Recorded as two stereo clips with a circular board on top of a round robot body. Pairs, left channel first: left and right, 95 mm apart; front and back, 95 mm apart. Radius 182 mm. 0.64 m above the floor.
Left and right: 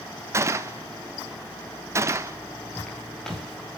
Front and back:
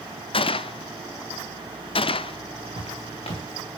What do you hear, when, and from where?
0.3 s a gunshot: 25° right, 0.6 m
2.8 s footsteps: 10° left, 6.5 m; by 3.8 s 5° left, 6 m